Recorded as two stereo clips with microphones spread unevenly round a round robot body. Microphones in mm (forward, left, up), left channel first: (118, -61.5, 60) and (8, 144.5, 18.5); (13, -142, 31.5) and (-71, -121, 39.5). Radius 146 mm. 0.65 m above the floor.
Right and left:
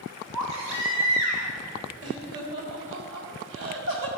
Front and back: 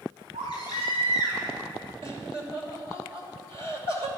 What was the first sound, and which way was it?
A baby crying, 135° left.